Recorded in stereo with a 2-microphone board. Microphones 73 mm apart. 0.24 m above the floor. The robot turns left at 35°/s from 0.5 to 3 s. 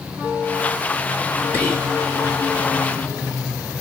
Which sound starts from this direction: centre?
Whispering, at 1.5 s.